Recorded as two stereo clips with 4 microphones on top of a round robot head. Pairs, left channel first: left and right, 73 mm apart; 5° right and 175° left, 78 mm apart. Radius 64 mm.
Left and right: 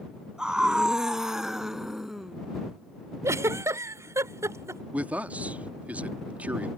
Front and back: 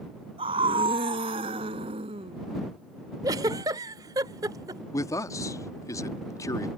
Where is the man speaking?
25° right.